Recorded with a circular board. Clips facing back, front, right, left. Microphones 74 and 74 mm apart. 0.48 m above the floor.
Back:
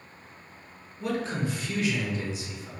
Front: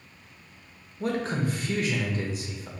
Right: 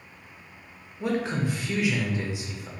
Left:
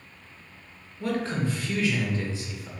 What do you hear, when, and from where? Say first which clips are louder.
1.0 s a man speaking: front 2 dB, right 1 dB; 25° right, 1.1 m